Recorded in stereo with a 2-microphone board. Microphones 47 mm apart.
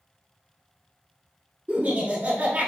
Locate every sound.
1.7 s laughter: 35° right (ahead or behind), 1.3 m